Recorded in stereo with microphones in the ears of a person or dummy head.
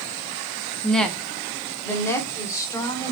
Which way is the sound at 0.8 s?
Centre (ahead or behind).